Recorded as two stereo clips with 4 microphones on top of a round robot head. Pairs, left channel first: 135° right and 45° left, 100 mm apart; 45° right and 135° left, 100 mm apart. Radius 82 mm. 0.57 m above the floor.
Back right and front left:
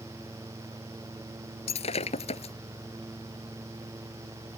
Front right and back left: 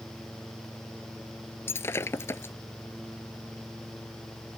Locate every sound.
1.7 s breaking glass: 115° right